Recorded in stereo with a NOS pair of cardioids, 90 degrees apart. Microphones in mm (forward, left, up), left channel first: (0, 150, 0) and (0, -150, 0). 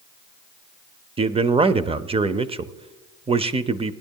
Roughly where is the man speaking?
Ahead.